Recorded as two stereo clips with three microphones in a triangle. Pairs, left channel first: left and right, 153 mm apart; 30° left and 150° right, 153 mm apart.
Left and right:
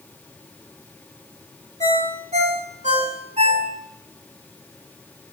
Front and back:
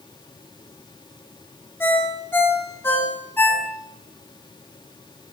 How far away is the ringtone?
About 2.5 m.